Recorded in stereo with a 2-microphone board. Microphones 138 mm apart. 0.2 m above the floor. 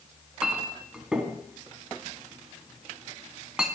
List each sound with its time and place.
0.4 s a clink: 5° right (ahead or behind), 1.0 m